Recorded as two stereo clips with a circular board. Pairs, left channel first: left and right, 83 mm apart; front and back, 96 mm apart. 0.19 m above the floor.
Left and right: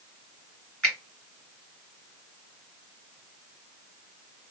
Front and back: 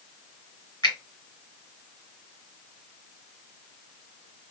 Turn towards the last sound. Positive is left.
turn(degrees=20)